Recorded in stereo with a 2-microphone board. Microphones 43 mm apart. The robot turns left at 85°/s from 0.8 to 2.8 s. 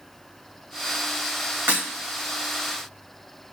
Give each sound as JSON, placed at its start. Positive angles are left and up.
{"t": 1.7, "sound": "breaking glass", "side_deg": -60, "distance_m": 3.0}